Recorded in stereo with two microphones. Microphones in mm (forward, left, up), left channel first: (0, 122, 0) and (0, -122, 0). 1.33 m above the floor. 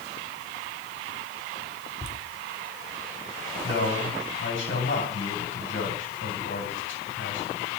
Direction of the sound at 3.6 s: 50° left (ahead or behind).